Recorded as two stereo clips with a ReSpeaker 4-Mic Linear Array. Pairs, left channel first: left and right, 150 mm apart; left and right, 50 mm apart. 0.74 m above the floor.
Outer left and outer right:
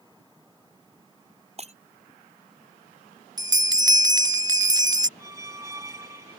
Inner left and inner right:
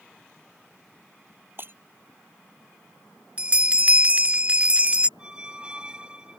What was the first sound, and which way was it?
Breaking glass, 45° right (ahead or behind).